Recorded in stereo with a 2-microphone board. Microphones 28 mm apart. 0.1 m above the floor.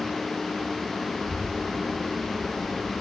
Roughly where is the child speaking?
Left.